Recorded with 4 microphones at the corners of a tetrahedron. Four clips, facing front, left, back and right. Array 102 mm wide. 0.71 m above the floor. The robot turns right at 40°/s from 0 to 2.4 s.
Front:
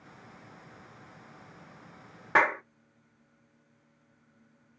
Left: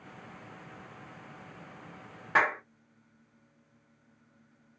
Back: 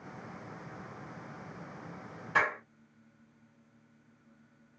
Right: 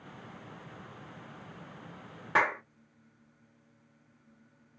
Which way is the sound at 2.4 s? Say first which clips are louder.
Left 1 dB, front 5 dB; 5° right.